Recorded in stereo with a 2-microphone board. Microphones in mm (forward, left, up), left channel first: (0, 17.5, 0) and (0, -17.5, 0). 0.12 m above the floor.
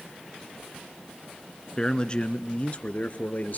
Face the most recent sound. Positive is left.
turn(degrees=50)  # may be behind; listen again after turning